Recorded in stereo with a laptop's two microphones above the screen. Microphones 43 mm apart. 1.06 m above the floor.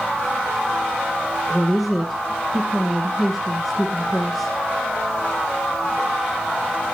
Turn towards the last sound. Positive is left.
turn(degrees=0)  # may be behind; listen again after turning